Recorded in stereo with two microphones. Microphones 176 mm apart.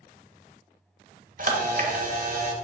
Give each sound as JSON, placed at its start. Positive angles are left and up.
{"t": 1.4, "sound": "a camera shutter", "side_deg": -50, "distance_m": 0.7}